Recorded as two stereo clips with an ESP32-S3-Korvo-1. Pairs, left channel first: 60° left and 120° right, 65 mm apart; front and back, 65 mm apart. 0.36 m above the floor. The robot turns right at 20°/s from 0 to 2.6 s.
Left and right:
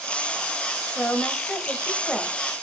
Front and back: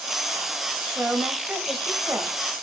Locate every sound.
0.9 s a woman speaking: 120° left, 1.5 m; by 2.4 s 150° left, 1.5 m